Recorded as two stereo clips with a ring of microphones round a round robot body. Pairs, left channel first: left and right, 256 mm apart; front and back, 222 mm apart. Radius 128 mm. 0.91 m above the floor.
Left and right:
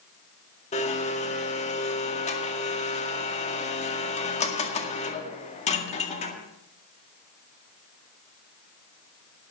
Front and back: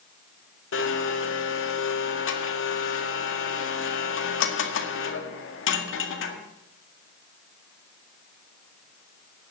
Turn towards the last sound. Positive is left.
turn(degrees=25)